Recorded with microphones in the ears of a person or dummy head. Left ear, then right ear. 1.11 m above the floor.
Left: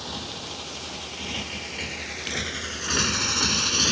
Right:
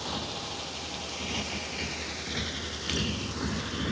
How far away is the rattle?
No rattle in this recording.